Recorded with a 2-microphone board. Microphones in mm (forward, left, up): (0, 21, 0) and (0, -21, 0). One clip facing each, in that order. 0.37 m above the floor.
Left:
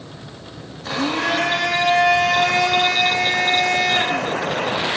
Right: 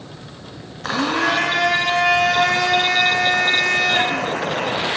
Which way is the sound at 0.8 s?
70° right (ahead or behind).